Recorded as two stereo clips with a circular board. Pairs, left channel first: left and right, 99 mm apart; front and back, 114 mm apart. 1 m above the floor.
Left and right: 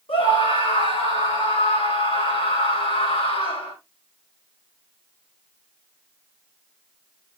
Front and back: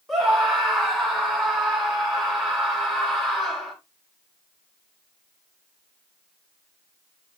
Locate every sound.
0.1 s a scream: 95° left, 4.5 m